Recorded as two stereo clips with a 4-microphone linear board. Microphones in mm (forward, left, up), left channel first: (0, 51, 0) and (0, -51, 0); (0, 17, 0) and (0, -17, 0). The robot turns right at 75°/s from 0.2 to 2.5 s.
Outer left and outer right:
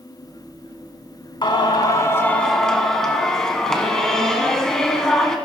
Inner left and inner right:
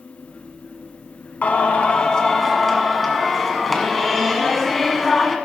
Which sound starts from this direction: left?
Singing, at 1.4 s.